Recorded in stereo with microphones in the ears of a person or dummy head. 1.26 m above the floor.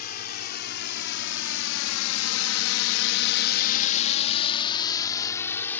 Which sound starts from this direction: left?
A drone, at 0.0 s.